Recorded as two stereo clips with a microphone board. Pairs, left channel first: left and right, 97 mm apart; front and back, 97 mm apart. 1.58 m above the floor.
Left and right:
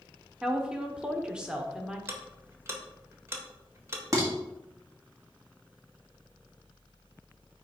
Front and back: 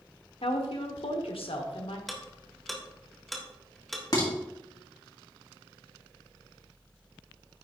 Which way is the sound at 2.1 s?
90° right.